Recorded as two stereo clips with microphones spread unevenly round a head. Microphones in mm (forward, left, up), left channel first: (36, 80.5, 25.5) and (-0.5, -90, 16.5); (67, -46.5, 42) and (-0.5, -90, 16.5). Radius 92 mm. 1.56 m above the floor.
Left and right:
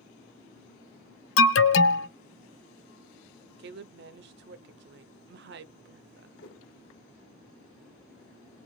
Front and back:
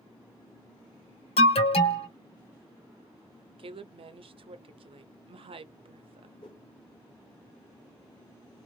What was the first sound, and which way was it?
An alarm, 70° left.